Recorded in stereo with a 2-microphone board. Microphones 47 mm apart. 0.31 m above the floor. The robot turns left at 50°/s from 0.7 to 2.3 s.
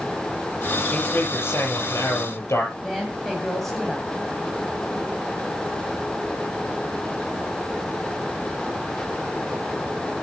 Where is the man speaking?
145° left, 6.5 m; by 2.7 s 75° left, 6.5 m.